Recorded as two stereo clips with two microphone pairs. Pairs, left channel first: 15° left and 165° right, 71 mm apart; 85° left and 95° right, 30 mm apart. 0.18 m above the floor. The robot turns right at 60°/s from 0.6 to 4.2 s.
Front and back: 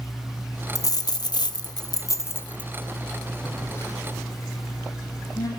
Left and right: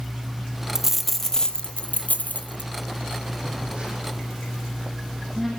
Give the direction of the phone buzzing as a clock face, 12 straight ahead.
2 o'clock.